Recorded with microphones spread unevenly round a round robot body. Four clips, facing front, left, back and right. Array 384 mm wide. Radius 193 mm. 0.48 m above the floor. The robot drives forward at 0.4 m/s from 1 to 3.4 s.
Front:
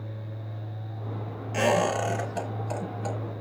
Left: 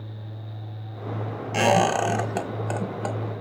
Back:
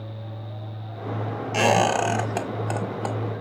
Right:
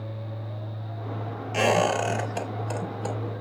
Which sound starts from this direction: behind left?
A squeak, at 1.5 s.